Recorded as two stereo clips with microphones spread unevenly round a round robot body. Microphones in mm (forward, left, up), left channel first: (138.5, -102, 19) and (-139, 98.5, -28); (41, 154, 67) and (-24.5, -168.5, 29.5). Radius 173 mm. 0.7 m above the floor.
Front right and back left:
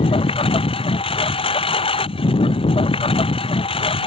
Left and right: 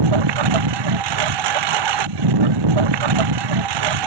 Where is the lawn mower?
110° right.